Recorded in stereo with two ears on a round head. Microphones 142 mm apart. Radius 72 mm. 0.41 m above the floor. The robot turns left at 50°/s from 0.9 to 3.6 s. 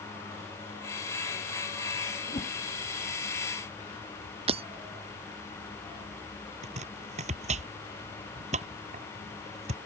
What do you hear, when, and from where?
2.3 s a whoosh: 40° left (ahead or behind); by 2.6 s 25° left (ahead or behind)
4.5 s breaking glass: 35° right (ahead or behind)
6.6 s chopping: 40° right (ahead or behind)